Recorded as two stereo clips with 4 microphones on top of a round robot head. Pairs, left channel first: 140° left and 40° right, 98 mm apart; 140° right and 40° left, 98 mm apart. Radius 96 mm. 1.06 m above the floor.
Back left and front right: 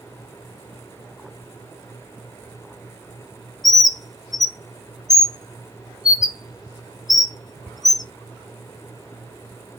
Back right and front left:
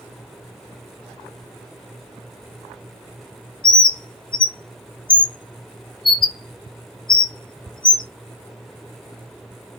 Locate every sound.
3.6 s a bird: 175° right, 0.6 m